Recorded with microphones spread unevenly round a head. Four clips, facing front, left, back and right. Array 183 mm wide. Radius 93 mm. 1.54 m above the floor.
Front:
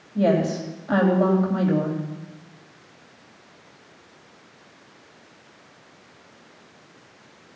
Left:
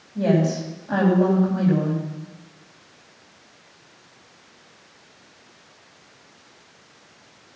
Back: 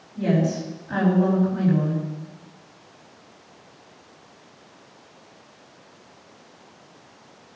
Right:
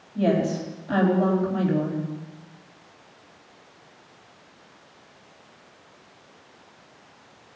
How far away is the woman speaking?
About 4 m.